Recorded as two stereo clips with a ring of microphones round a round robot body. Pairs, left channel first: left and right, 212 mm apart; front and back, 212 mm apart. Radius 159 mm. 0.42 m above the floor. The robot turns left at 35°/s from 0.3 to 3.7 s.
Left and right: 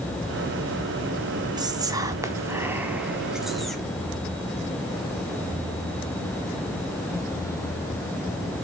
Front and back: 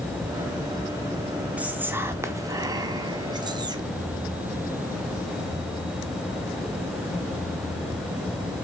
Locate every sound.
1.6 s whispering: 110° right, 0.7 m; by 3.9 s 175° left, 0.7 m